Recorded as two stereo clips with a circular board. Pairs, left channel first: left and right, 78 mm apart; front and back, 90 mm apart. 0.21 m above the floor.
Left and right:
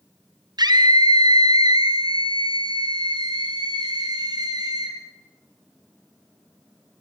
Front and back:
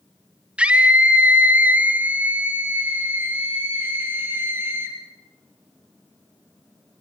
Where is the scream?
105° right, 3 m; by 5.0 s 115° right, 5.5 m.